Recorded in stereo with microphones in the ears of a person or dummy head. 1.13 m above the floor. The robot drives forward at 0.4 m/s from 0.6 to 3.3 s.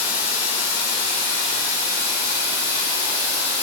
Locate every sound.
0.0 s running water: 75° left (ahead or behind), 2.5 m; by 3.6 s 55° left (ahead or behind), 3 m